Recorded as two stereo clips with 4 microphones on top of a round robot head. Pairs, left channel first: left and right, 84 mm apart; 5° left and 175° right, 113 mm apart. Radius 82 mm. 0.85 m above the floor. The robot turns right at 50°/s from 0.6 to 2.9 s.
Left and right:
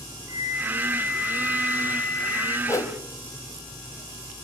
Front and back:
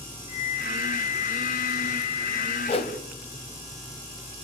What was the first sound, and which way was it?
A flute, 45° right.